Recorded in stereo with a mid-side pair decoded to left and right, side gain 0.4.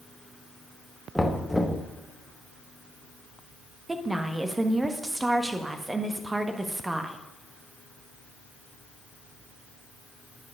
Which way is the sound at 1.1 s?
5° left.